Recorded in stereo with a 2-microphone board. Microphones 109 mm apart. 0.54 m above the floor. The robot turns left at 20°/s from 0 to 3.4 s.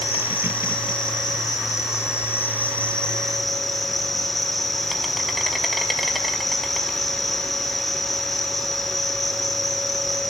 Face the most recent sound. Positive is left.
turn(degrees=0)